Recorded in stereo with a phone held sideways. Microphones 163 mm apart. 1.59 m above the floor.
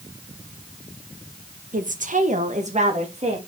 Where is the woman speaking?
55° right (ahead or behind), 1.0 m; by 3.4 s 45° right (ahead or behind), 2 m.